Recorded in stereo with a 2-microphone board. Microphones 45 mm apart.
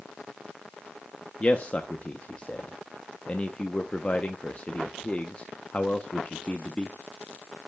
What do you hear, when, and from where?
1.4 s a man speaking: 30° left (ahead or behind), 0.7 m